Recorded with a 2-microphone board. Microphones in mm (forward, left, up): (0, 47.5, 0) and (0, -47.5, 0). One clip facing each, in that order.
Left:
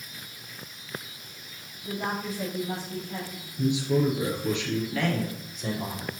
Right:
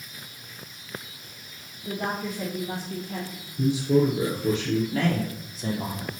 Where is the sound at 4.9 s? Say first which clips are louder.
Right 2 dB; 35° right (ahead or behind), 3.5 m.